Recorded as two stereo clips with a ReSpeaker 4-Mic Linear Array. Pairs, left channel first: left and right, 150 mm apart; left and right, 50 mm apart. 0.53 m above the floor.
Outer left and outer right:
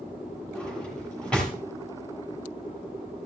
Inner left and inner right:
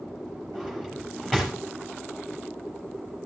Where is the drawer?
5° left (ahead or behind), 5.5 m.